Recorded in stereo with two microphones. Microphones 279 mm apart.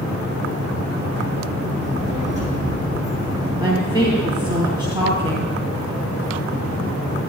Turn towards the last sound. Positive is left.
turn(degrees=-15)  # may be behind; listen again after turning